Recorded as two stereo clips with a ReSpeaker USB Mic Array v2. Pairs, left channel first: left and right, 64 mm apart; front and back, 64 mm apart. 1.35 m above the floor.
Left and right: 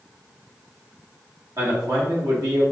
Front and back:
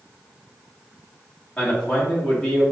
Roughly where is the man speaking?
Right.